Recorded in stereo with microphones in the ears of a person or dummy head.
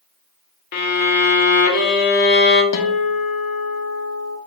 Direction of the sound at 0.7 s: 60° left (ahead or behind).